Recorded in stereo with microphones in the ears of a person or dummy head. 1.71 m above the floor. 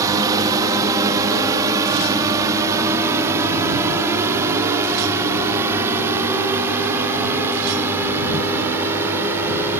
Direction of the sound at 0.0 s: 20° right (ahead or behind).